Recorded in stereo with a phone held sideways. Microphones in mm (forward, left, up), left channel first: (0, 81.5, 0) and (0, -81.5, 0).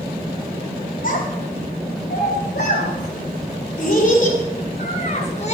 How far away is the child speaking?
About 2.5 m.